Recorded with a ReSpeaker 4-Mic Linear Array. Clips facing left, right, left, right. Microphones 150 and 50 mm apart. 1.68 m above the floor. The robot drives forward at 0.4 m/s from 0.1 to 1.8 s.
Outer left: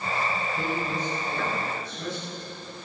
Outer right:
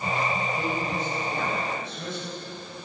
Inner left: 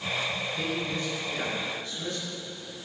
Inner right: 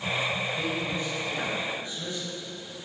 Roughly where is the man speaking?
Right.